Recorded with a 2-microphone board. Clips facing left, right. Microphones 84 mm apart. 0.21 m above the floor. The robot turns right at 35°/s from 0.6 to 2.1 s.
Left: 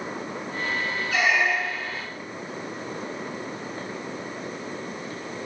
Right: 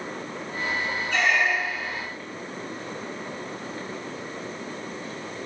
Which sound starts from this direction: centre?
A squeak, at 1.1 s.